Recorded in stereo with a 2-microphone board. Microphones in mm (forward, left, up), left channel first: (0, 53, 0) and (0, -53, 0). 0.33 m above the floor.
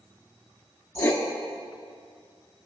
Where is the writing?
25° left (ahead or behind), 0.7 m.